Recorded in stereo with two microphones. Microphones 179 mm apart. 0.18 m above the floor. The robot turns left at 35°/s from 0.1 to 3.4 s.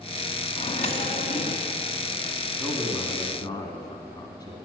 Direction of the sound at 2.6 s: 10° left (ahead or behind).